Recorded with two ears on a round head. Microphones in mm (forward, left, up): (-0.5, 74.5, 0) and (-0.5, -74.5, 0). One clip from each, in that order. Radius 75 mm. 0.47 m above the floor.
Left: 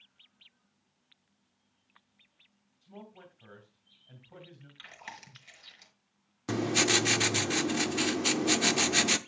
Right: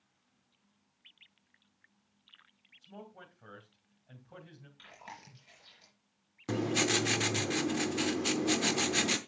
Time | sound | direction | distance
2.8 | a man speaking | 20° right (ahead or behind) | 2.5 m
4.8 | chewing | 50° left (ahead or behind) | 4 m
6.5 | writing | 20° left (ahead or behind) | 0.6 m